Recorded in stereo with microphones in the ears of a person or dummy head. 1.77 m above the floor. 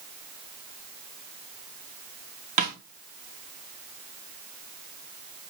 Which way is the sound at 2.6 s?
35° right (ahead or behind).